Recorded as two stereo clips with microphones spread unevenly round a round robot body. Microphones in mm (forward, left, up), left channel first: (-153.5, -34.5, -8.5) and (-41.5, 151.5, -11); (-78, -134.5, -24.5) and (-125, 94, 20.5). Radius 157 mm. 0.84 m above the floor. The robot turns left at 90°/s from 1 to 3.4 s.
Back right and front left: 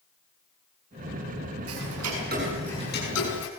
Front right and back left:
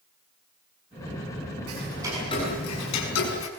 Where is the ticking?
55° left, 6 m; by 3.5 s 100° right, 6 m.